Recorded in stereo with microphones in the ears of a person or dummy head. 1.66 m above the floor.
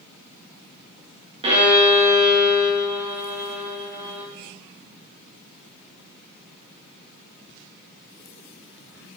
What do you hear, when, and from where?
1.4 s a violin: 30° right (ahead or behind), 3.5 m